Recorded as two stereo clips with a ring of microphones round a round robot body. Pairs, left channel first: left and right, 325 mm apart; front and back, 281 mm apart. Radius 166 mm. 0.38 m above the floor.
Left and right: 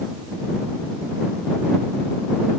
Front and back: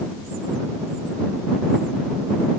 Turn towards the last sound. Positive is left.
No sound to turn to.